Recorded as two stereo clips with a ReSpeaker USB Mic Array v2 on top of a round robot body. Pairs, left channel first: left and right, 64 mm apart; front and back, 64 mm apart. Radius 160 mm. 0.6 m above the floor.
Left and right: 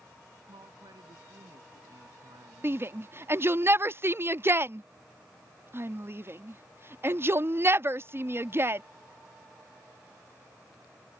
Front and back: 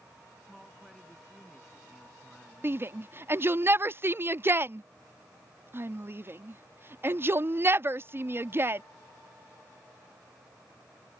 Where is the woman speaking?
90° right.